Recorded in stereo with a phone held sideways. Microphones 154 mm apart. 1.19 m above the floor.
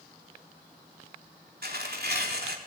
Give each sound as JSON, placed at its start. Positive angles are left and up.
{"t": 1.6, "sound": "tearing paper", "side_deg": -80, "distance_m": 3.5}